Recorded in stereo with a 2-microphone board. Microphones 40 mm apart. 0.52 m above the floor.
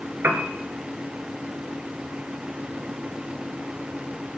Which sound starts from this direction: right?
A piano, at 0.2 s.